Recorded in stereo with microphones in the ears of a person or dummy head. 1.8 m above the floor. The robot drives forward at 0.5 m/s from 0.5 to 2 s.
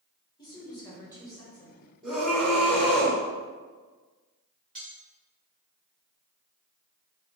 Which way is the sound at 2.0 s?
5° right (ahead or behind).